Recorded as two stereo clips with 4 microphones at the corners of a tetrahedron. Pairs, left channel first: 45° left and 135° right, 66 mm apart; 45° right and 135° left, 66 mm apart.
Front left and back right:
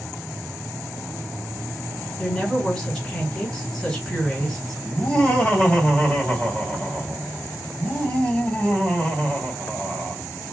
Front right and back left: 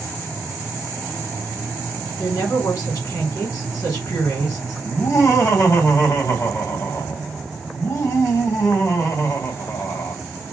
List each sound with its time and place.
2.2 s a woman speaking: 35° right, 2.5 m
4.8 s laughter: 25° right, 2 m